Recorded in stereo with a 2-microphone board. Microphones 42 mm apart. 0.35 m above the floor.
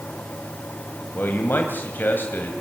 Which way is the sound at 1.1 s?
50° left (ahead or behind).